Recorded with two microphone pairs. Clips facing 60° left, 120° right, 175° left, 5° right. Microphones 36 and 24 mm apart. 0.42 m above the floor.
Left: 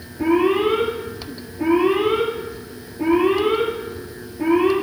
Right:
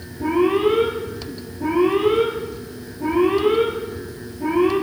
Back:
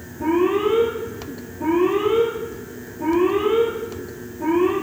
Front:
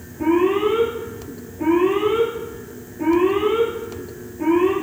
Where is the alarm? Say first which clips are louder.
Left 1 dB, front 1 dB; 35° left, 6.5 m.